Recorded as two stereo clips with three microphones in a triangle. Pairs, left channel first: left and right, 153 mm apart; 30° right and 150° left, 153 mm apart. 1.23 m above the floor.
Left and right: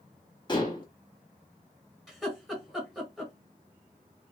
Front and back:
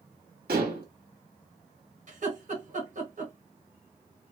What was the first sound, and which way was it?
Dishes clattering, 150° left.